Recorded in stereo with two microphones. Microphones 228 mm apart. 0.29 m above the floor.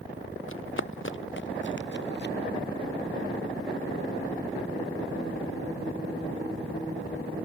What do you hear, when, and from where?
0.5 s running footsteps: 65° left (ahead or behind); by 2.4 s 50° left (ahead or behind)